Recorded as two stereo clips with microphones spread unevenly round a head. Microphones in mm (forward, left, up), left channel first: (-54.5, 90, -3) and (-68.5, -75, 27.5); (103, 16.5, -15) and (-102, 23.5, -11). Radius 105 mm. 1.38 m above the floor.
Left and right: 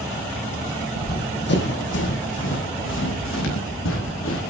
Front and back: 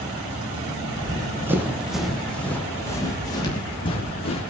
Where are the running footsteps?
110° left, 3.5 m; by 4.4 s 60° left, 5.5 m.